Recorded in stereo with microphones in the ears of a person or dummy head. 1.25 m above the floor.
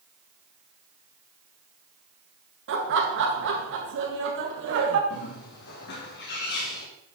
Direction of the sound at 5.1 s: 60° left (ahead or behind).